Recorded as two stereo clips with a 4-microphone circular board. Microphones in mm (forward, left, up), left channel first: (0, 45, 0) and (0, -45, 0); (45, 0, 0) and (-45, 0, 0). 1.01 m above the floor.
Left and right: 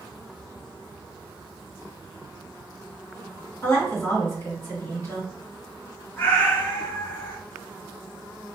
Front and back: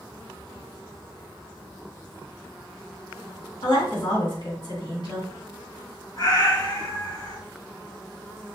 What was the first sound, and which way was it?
A woman speaking, 25° left.